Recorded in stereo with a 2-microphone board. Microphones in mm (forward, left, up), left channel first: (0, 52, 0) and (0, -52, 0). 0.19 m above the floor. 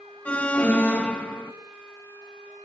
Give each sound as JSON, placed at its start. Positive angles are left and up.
{"t": 0.2, "sound": "an alarm", "side_deg": 15, "distance_m": 1.7}